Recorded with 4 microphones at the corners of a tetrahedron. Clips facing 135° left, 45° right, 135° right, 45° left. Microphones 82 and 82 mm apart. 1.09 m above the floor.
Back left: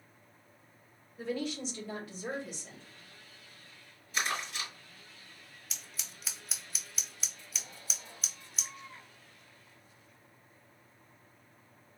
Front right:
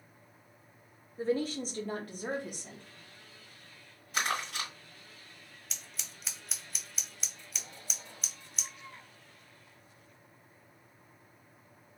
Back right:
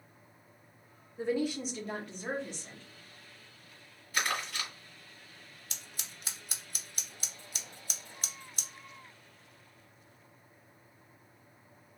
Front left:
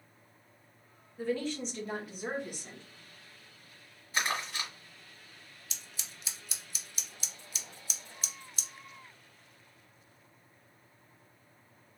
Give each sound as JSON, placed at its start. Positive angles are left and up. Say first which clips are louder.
{"t": 1.2, "sound": "a woman speaking", "louder": "front right 4 dB, back right 2 dB", "azimuth_deg": -80, "distance_m": 0.8}
{"t": 4.1, "sound": "crumpling", "louder": "front right 2 dB, even", "azimuth_deg": -20, "distance_m": 2.0}
{"t": 5.7, "sound": "scissors", "louder": "even, back right 1 dB", "azimuth_deg": -135, "distance_m": 0.7}